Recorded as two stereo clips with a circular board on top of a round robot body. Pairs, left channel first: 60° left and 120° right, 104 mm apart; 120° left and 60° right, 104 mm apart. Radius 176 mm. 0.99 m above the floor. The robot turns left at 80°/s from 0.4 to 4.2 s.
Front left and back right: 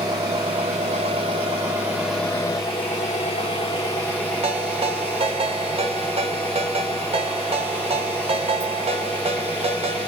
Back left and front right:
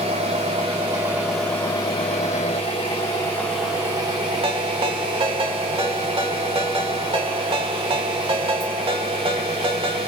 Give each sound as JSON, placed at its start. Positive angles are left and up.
{"t": 0.0, "sound": "an engine running", "azimuth_deg": -75, "distance_m": 0.7}
{"t": 4.4, "sound": "a ringtone", "azimuth_deg": -95, "distance_m": 0.9}